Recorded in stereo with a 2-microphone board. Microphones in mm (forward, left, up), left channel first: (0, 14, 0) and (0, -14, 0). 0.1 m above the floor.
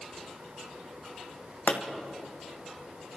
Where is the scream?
No scream in this recording.